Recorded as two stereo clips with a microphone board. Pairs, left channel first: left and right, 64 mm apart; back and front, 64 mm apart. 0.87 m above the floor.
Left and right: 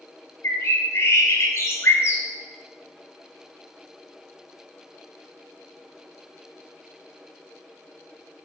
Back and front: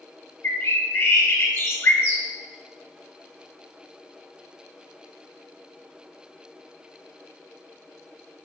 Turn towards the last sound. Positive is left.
turn(degrees=135)